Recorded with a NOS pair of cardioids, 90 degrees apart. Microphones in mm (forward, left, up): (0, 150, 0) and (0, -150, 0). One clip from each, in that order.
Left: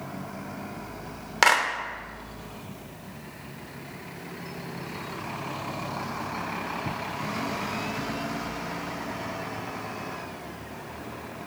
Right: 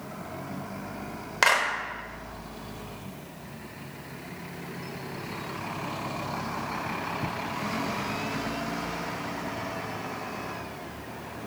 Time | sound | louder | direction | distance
1.4 | a clap | left 2 dB | 10° left | 0.6 m